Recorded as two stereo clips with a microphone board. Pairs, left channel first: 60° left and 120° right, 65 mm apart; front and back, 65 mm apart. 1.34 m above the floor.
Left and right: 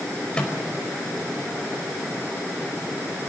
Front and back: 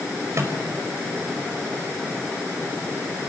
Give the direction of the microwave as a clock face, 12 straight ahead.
8 o'clock.